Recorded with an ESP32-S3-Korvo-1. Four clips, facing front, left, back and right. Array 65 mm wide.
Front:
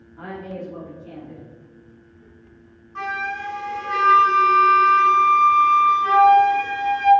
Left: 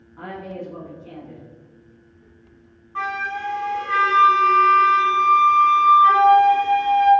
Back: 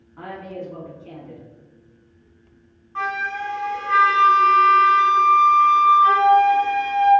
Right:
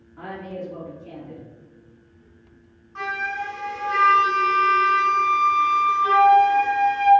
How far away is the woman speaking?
About 1.3 m.